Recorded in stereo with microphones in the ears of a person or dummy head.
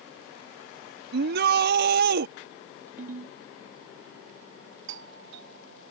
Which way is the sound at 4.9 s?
65° right (ahead or behind).